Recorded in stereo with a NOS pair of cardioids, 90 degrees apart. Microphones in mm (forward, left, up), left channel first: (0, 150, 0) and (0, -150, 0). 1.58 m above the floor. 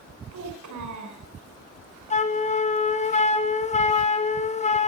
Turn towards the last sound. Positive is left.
turn(degrees=20)